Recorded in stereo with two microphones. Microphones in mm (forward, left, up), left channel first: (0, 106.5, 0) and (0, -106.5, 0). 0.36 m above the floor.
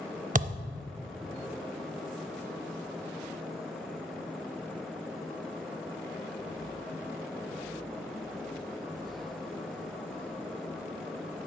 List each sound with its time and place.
0.3 s a thud: 40° right (ahead or behind), 0.5 m